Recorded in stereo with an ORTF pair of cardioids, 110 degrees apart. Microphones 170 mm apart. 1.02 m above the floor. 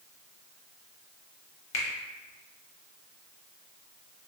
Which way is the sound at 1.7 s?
35° left.